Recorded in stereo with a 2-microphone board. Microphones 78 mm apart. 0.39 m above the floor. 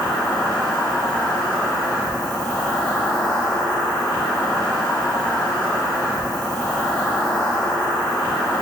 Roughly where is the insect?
Centre.